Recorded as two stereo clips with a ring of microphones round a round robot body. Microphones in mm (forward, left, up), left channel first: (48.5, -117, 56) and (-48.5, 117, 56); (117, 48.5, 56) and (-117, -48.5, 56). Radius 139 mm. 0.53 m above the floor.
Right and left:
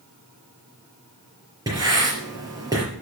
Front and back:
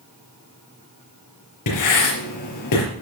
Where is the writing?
35° left, 5 m.